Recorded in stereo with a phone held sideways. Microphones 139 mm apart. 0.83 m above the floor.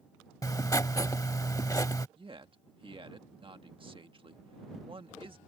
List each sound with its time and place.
0.4 s writing: 25° left (ahead or behind)
2.2 s a man speaking: 40° right (ahead or behind)